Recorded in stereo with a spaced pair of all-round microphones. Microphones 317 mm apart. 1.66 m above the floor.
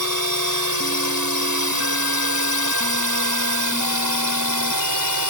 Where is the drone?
70° right (ahead or behind).